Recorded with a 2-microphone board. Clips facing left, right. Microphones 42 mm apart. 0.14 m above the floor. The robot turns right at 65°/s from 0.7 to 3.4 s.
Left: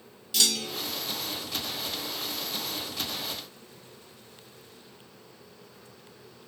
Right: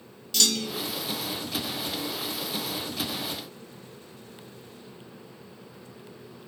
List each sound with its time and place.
0.3 s a clunk: 10° left (ahead or behind), 0.6 m; by 0.9 s 5° right (ahead or behind), 0.6 m